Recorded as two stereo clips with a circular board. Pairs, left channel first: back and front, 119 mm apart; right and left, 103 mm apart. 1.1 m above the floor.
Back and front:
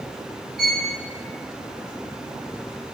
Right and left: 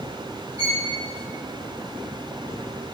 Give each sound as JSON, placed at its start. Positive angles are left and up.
{"t": 0.6, "sound": "a violin", "azimuth_deg": -85, "distance_m": 2.0}